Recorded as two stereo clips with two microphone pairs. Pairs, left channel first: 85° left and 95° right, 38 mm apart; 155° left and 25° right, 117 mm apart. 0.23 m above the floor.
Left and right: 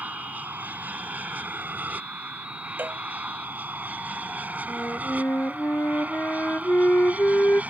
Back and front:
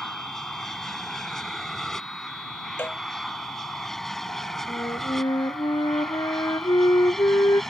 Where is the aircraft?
120° right.